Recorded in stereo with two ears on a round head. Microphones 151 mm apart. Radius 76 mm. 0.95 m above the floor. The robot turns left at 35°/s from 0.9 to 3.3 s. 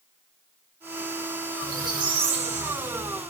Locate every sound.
1.6 s a squeak: 20° right, 1.1 m; by 3.2 s 75° right, 1.1 m